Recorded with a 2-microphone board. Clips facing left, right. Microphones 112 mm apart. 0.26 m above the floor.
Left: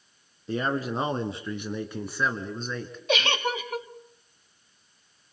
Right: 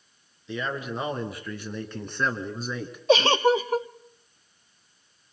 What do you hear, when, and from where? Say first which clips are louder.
0.5 s a man speaking: left 4 dB; 45° left (ahead or behind), 3 m; by 3.0 s 15° right (ahead or behind), 2.5 m
3.1 s a giggle: right 8 dB; 35° right (ahead or behind), 0.6 m